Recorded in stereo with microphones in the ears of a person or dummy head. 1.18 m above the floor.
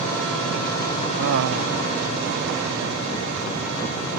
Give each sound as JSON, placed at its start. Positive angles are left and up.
{"t": 1.2, "sound": "laughter", "side_deg": -75}